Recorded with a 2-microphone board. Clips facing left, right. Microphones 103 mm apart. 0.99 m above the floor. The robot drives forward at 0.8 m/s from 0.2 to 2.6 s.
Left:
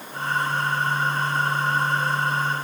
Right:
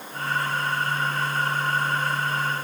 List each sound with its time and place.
Only background noise.